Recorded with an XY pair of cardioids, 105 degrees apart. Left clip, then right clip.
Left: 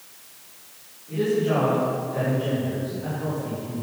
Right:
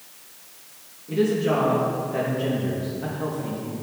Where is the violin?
No violin in this recording.